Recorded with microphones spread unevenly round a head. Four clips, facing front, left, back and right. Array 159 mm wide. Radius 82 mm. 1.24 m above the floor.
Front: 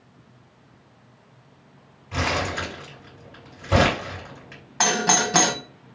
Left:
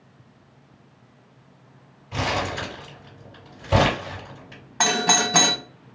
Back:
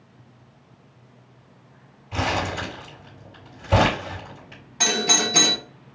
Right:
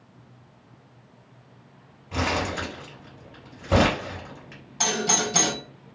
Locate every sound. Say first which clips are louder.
2.1 s crumpling: left 1 dB, back 1 dB; 80° right, 1.9 m
4.8 s a doorbell: left 4 dB, front 3 dB; 50° left, 0.6 m